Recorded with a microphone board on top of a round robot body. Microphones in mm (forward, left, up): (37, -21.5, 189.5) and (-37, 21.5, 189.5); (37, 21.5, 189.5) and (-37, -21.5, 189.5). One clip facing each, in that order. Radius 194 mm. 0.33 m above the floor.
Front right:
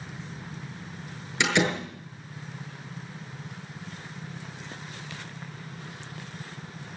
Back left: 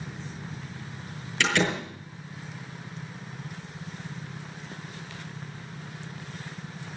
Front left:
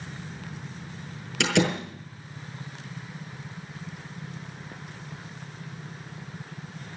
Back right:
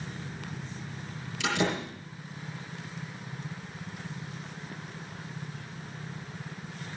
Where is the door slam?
40° left, 6.5 m.